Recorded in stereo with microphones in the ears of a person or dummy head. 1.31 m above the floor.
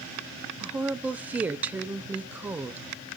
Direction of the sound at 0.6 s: 10° right (ahead or behind).